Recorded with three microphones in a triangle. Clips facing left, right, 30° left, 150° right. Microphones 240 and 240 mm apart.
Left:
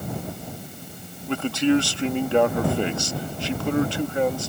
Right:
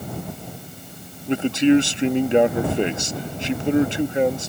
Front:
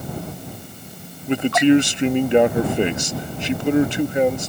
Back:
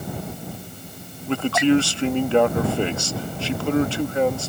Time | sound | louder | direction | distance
1.3 | a man speaking | right 4 dB, front 3 dB | 35° right | ?